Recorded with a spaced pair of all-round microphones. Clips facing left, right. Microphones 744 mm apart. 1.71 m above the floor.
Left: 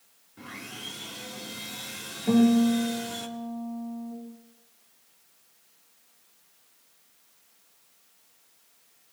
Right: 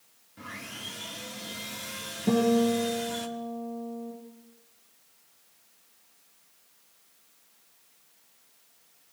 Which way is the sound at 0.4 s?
15° right (ahead or behind).